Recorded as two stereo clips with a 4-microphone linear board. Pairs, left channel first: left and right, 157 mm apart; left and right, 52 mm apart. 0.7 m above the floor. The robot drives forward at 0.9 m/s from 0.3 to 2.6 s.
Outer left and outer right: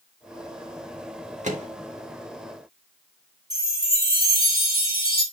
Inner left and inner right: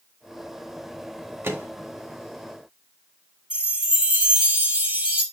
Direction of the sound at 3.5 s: 25° right (ahead or behind).